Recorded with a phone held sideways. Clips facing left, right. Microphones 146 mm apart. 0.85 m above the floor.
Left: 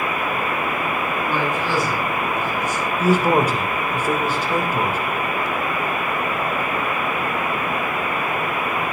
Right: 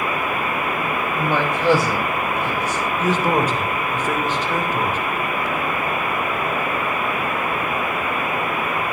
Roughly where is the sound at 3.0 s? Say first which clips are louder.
Left 3 dB; centre.